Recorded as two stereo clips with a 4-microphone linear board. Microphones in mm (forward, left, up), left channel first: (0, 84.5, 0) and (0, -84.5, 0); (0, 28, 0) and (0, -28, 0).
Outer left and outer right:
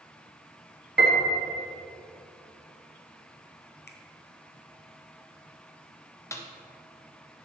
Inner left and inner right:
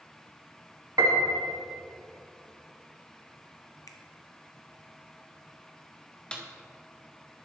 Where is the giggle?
No giggle in this recording.